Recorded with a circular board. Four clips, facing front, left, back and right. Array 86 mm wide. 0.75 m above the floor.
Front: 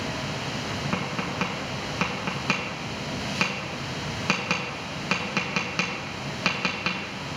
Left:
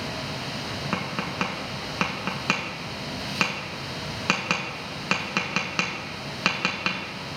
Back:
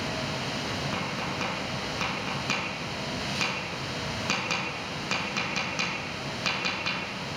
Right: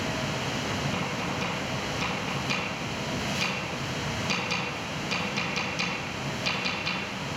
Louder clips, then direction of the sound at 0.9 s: Left 1 dB, front 3 dB; 65° left.